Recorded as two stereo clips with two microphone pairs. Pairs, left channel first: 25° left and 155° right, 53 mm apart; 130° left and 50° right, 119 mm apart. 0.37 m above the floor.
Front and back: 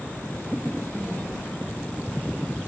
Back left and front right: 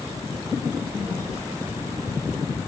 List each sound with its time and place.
0.7 s a child speaking: 120° right, 8.5 m